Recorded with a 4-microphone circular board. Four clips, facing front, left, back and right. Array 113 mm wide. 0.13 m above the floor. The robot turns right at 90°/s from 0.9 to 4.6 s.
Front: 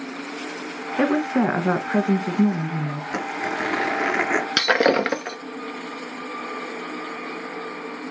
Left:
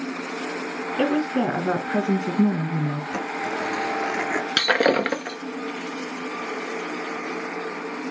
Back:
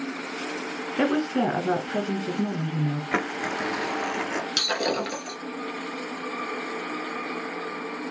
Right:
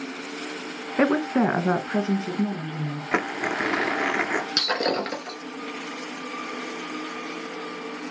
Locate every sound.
1.0 s a woman speaking: 75° right, 1.4 m; by 3.0 s 105° left, 1.4 m
3.1 s crumpling: 115° right, 1.3 m; by 4.5 s 10° left, 1.3 m
4.6 s breaking glass: 30° left, 1.0 m